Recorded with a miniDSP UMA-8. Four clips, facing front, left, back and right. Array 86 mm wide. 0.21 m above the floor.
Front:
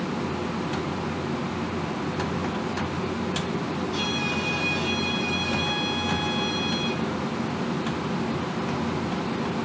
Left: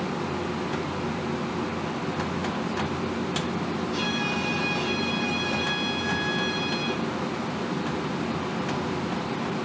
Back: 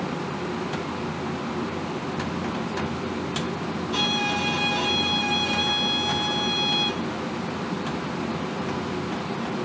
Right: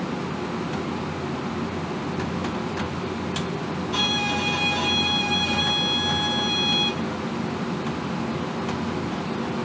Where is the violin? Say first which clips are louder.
Right 2 dB, back 2 dB; 130° right, 5.5 m.